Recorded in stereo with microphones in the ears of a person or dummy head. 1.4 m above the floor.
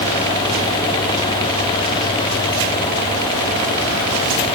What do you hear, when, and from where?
Only background noise.